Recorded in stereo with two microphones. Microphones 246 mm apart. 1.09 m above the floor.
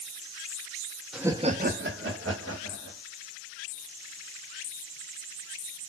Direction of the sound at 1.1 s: Centre (ahead or behind).